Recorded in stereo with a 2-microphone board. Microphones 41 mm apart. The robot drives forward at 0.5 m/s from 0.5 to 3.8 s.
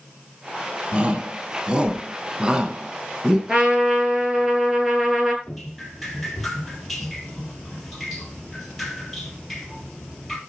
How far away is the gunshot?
No gunshot in this recording.